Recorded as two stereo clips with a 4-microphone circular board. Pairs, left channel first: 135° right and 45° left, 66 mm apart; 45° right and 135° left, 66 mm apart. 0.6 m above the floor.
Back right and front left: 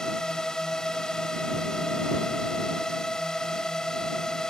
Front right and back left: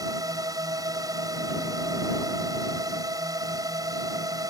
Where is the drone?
145° left.